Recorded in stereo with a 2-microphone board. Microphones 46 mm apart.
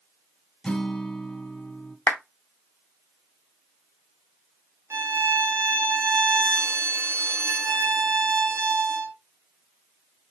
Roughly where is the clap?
Left.